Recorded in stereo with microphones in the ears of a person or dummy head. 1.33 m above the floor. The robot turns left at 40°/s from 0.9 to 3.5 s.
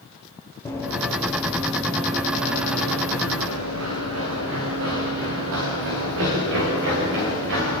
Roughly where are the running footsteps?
Centre.